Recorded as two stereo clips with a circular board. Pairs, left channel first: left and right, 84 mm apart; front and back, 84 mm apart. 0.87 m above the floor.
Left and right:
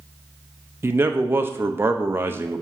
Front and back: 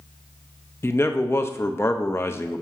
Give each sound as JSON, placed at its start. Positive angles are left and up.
{"t": 0.8, "sound": "a man speaking", "azimuth_deg": -45, "distance_m": 0.7}